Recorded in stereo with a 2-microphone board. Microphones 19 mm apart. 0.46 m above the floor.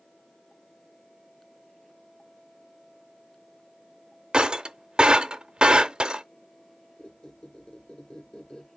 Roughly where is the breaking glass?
Right.